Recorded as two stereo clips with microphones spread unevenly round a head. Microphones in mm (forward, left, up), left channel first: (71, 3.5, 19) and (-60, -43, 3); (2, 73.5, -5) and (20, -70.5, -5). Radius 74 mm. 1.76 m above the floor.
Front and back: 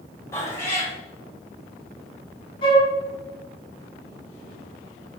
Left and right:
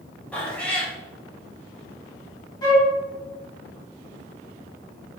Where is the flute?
45° left, 1.3 m.